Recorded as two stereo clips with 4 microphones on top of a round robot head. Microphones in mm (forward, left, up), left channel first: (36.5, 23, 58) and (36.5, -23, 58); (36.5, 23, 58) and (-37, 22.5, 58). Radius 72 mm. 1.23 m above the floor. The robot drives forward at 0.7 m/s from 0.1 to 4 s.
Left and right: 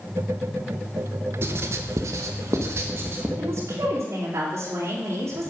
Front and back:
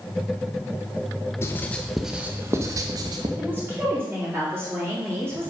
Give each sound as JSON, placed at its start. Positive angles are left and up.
{"t": 1.4, "sound": "writing", "azimuth_deg": -60, "distance_m": 0.8}
{"t": 3.4, "sound": "a woman speaking", "azimuth_deg": -110, "distance_m": 2.5}